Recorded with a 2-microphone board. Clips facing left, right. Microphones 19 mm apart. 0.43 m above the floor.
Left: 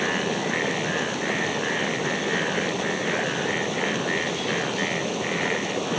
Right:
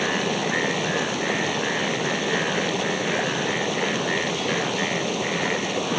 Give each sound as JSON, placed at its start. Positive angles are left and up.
{"t": 0.0, "sound": "running water", "side_deg": -15}